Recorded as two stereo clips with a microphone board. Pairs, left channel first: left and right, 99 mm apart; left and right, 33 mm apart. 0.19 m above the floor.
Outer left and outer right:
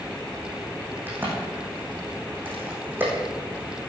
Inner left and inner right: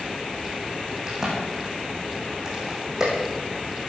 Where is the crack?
20° right (ahead or behind), 6.5 m.